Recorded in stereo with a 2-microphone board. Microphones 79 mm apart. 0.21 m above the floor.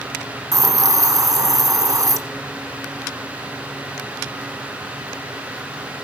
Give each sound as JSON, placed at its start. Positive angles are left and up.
{"t": 0.5, "sound": "a hiss", "side_deg": -45, "distance_m": 1.6}